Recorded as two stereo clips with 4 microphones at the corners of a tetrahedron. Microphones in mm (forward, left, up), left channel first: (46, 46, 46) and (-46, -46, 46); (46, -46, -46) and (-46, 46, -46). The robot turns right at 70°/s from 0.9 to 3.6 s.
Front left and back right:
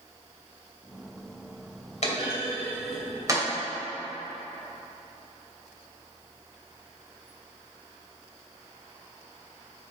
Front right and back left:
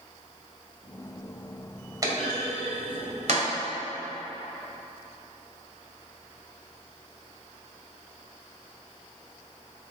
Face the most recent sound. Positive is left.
turn(degrees=-175)